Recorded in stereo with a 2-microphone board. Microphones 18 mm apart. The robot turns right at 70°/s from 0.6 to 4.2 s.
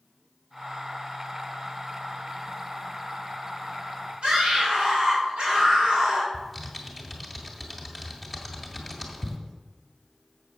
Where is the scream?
55° right (ahead or behind), 3 m.